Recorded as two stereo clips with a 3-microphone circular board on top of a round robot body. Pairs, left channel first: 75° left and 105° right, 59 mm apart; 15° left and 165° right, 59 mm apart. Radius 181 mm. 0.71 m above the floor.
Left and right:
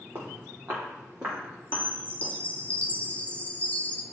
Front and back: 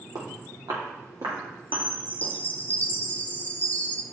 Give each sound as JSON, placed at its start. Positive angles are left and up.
{"t": 0.1, "sound": "footsteps", "azimuth_deg": -160, "distance_m": 2.0}
{"t": 1.7, "sound": "a chime", "azimuth_deg": 35, "distance_m": 0.9}